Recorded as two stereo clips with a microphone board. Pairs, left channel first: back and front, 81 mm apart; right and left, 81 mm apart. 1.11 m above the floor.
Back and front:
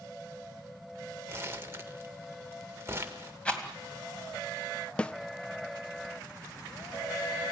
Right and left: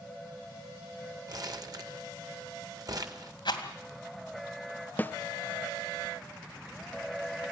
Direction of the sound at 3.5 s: 105° right.